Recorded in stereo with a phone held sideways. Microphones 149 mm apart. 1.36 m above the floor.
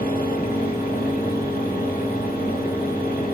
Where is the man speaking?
I don't hear a man speaking.